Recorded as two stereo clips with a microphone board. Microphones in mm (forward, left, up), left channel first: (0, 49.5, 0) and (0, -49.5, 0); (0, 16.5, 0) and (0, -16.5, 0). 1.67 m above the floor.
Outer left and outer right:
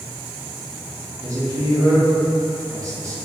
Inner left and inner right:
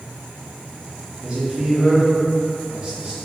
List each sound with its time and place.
1.2 s a man speaking: 35° right (ahead or behind), 0.9 m